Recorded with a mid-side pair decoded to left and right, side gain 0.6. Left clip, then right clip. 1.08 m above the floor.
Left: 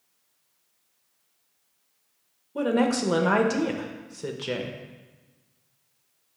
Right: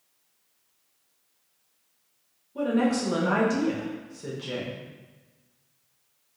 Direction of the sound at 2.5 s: 40° left.